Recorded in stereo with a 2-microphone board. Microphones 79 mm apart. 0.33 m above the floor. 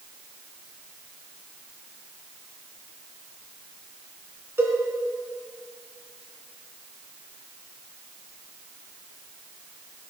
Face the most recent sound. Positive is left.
turn(degrees=-30)  # may be behind; listen again after turning